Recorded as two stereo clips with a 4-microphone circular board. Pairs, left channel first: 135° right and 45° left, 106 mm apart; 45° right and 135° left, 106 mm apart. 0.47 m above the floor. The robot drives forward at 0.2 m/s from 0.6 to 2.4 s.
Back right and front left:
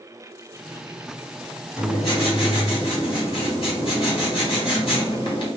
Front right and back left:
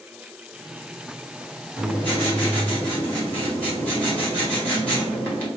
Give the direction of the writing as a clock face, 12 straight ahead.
4 o'clock.